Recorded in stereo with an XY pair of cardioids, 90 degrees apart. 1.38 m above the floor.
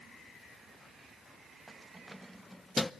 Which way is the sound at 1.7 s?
20° right.